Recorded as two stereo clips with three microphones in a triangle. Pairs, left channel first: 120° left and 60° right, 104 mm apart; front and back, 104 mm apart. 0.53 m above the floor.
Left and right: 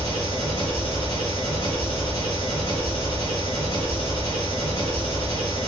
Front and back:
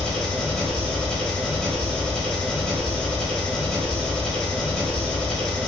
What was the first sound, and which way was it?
An engine running, 85° left.